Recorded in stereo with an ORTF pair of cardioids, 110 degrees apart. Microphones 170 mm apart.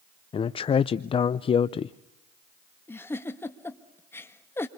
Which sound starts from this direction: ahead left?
A man speaking, at 0.3 s.